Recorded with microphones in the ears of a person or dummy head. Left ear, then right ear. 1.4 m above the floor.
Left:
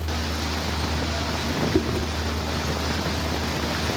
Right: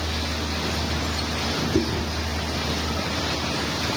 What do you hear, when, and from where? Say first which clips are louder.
1.7 s chewing: even; 25° left (ahead or behind), 1.5 m